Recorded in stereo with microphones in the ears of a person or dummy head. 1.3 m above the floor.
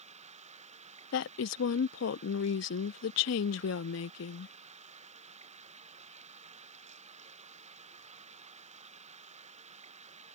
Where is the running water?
35° right (ahead or behind).